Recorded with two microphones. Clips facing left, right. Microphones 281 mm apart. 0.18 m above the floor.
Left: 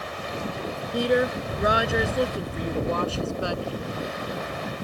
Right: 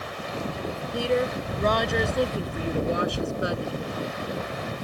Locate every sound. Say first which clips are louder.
0.9 s a woman speaking: left 3 dB; 20° left (ahead or behind); by 3.8 s 25° right (ahead or behind)